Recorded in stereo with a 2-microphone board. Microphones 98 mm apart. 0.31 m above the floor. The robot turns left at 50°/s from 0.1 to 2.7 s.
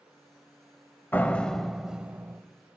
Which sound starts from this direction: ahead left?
A door slam, at 1.1 s.